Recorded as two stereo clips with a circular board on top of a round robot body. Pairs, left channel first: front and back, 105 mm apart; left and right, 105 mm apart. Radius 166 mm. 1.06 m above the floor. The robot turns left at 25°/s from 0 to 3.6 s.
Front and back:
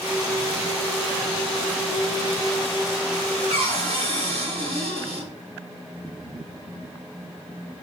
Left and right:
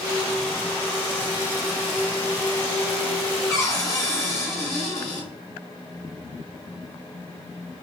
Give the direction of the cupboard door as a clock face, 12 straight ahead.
7 o'clock.